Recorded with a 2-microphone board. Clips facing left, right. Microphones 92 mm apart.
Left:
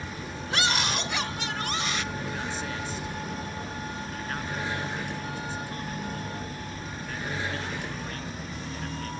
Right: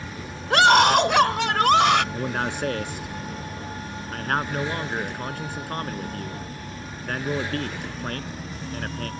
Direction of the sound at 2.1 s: 60° right (ahead or behind).